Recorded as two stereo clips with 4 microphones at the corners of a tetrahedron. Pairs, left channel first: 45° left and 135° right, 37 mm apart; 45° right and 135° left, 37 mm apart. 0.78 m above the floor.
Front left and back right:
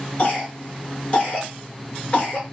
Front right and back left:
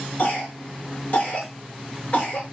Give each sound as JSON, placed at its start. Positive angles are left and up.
{"t": 0.2, "sound": "a cough", "azimuth_deg": -10, "distance_m": 1.0}